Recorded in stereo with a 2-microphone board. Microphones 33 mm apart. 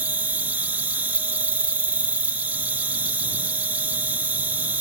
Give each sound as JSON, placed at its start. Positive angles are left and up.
{"t": 0.0, "sound": "an insect", "side_deg": -60}